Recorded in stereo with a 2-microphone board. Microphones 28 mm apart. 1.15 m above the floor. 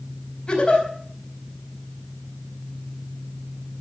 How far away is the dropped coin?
No dropped coin in this recording.